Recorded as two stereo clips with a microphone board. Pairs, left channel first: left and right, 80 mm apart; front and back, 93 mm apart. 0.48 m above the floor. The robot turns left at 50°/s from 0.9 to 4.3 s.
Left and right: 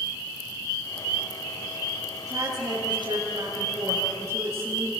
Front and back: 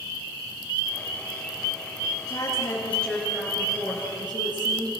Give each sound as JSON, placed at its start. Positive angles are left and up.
{"t": 2.3, "sound": "a woman speaking", "azimuth_deg": -45, "distance_m": 10.0}